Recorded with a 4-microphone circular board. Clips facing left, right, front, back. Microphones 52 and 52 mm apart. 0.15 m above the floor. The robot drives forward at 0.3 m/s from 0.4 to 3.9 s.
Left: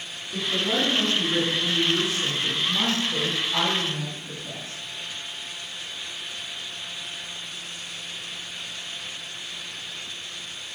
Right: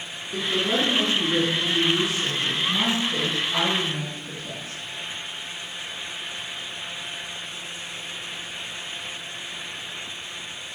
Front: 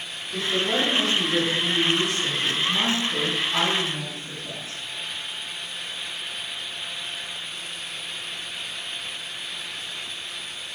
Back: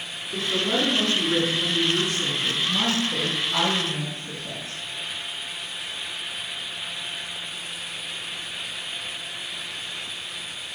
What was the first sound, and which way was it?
A woman speaking, 120° right.